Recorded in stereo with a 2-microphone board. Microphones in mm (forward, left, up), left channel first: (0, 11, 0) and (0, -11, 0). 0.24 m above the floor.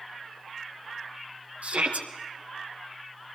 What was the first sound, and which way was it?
A shout, 70° right (ahead or behind).